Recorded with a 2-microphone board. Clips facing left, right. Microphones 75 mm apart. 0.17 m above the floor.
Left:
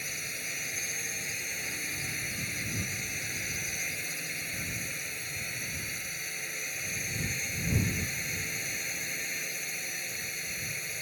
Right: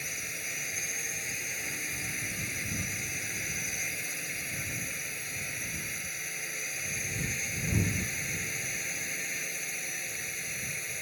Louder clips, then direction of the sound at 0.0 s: Even; centre (ahead or behind).